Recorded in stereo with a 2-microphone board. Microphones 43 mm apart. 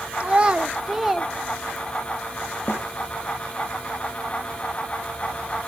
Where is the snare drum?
65° left (ahead or behind), 2 m.